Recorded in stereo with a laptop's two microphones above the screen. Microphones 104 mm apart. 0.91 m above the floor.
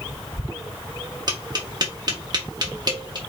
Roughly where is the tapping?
Right.